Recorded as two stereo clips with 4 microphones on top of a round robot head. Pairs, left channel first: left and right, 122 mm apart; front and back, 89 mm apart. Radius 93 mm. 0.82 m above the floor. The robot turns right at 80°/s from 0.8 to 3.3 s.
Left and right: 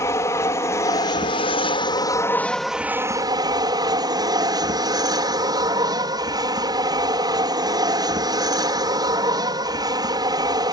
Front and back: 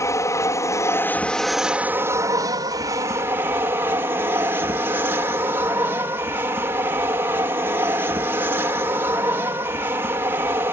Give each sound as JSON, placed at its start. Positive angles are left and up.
{"t": 0.0, "sound": "an aircraft", "azimuth_deg": 30}